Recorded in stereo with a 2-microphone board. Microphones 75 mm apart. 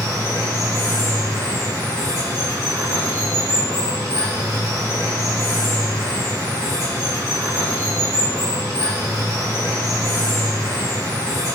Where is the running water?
65° right (ahead or behind), 3 m.